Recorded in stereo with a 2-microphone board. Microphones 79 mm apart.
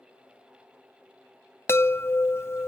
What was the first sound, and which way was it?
A chime, 30° left (ahead or behind).